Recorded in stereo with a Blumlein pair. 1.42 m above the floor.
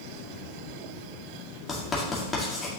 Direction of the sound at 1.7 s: 15° left.